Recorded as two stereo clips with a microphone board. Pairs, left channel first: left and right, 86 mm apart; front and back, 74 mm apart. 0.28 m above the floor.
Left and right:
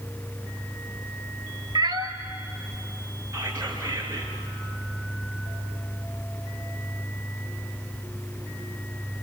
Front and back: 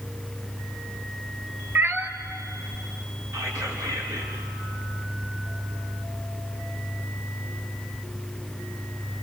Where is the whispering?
145° right, 4 m.